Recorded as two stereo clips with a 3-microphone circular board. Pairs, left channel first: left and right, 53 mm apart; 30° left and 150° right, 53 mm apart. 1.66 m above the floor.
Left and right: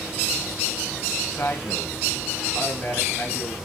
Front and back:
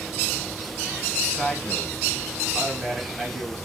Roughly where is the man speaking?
Behind left.